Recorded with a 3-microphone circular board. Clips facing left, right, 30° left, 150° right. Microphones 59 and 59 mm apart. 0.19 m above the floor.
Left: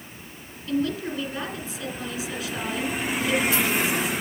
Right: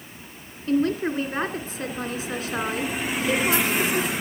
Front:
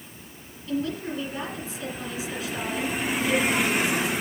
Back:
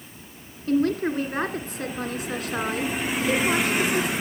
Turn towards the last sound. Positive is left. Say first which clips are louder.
# right 4 dB, back 7 dB
turn(degrees=-125)